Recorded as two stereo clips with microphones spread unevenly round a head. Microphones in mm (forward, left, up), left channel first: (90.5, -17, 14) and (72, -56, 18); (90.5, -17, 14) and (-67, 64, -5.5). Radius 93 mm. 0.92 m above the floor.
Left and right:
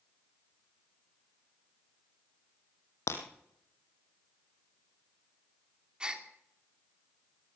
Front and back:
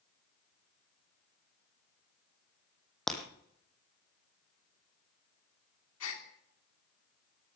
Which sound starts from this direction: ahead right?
A gasp, at 6.0 s.